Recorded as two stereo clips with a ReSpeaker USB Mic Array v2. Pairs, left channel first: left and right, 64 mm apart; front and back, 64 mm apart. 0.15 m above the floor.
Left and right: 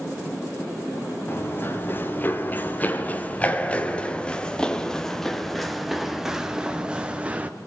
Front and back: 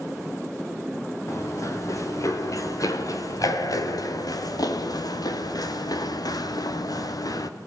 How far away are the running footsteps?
About 4.5 m.